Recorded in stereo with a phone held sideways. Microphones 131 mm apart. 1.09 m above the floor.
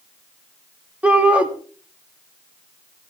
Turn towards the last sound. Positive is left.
turn(degrees=-10)  # may be behind; listen again after turning